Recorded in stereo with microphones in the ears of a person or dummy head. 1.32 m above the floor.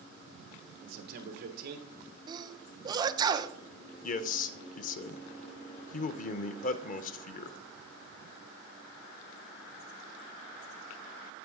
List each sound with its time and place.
0.8 s a man speaking: 45° right (ahead or behind), 1.3 m
2.3 s a sneeze: 15° right (ahead or behind), 1.1 m
4.0 s a man speaking: 40° left (ahead or behind), 0.7 m